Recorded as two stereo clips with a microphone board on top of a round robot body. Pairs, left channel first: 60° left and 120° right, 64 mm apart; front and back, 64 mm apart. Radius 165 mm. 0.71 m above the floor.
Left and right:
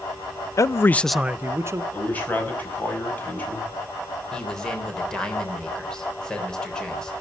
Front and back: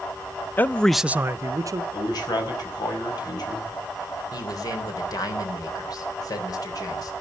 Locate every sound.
0.6 s a man speaking: 50° left, 0.7 m; by 1.8 s 160° right, 1.0 m
1.9 s a man speaking: 5° right, 5.5 m
4.3 s a man speaking: 20° right, 4 m